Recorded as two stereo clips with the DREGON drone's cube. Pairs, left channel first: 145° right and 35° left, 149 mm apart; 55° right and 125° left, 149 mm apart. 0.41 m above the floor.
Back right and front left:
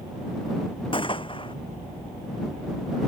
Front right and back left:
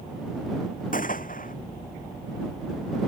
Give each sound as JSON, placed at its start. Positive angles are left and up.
{"t": 0.9, "sound": "a gunshot", "azimuth_deg": -90}